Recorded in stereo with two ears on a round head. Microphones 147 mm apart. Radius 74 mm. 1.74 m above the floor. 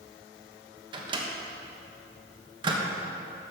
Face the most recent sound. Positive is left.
turn(degrees=-30)  # may be behind; listen again after turning